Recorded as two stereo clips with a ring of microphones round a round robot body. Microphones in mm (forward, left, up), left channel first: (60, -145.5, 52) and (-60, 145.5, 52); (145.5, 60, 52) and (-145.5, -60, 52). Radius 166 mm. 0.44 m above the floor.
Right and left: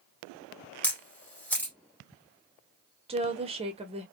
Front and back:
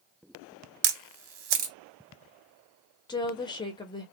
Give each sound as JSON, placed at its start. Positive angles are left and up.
{"t": 0.8, "sound": "a camera shutter", "azimuth_deg": -150, "distance_m": 0.6}
{"t": 3.1, "sound": "a woman speaking", "azimuth_deg": 75, "distance_m": 0.8}